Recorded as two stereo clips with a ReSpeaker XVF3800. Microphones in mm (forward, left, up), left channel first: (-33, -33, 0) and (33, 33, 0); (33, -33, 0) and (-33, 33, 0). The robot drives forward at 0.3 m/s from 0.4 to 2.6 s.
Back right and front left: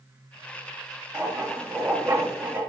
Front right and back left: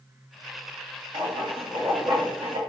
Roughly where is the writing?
Left.